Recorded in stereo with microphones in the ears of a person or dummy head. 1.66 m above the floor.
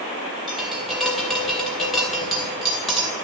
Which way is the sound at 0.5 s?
Centre (ahead or behind).